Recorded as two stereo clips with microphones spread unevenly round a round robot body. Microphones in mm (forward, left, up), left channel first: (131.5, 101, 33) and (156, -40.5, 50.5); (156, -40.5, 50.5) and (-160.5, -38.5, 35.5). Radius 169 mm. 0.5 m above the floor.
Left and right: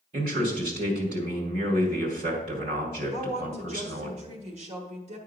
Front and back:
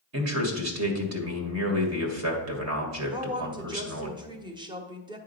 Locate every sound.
0.1 s a man speaking: 145° right, 2 m
3.1 s a woman speaking: 110° right, 1.1 m